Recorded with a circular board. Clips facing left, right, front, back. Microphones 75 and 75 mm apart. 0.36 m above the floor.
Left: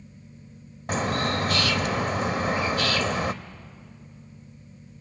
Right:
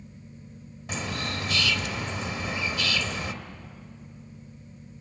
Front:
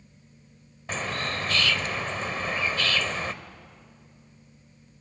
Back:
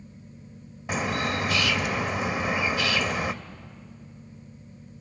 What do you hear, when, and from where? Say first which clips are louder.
0.9 s a bird: left 7 dB, back 4 dB; 105° left, 0.7 m